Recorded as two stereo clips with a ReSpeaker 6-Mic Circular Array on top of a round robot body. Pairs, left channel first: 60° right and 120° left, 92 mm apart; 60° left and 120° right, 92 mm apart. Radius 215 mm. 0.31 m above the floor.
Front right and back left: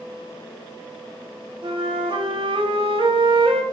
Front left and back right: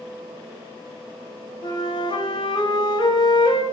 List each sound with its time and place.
1.6 s a flute: 95° left, 1.2 m